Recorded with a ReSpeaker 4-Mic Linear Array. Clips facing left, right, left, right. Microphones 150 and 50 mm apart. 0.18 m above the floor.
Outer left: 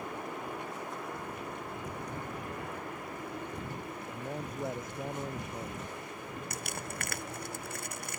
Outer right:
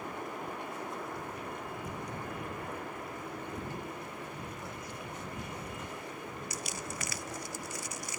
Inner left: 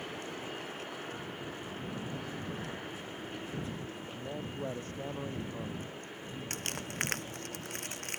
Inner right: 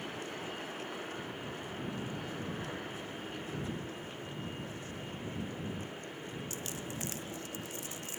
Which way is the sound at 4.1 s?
45° left (ahead or behind).